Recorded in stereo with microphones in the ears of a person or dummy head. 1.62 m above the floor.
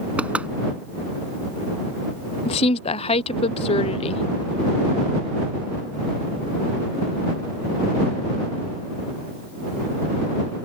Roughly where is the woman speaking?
Left.